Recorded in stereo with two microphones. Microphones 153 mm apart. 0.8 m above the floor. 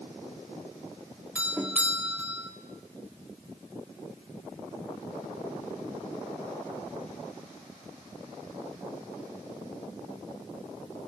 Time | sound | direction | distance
1.4 | a doorbell | 10° right (ahead or behind) | 2 m